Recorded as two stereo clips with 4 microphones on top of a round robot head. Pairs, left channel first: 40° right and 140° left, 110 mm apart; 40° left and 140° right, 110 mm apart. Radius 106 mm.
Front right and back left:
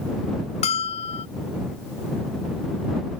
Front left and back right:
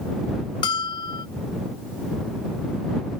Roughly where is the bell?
Ahead.